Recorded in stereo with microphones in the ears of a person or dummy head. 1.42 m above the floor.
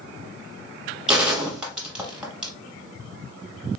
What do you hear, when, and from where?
1.1 s a gunshot: 5° right (ahead or behind), 1.5 m